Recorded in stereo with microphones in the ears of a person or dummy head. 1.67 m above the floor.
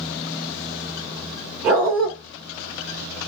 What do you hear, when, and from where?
1.6 s a dog barking: 5° right (ahead or behind), 1.3 m